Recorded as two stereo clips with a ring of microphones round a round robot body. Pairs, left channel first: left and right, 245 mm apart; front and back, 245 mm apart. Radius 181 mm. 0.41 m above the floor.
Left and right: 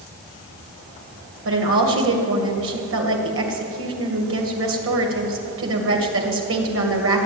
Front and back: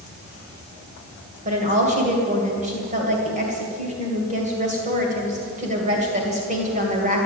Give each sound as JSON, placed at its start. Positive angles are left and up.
{"t": 1.4, "sound": "a woman speaking", "azimuth_deg": -120, "distance_m": 2.5}